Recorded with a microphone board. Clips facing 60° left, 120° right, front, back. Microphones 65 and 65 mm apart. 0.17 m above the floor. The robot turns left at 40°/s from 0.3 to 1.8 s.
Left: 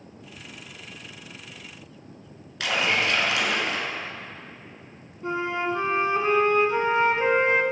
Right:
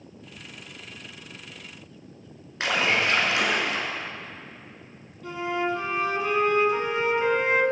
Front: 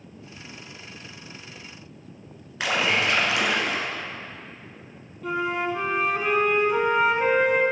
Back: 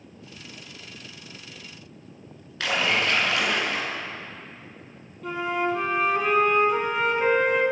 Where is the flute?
90° left, 0.9 m.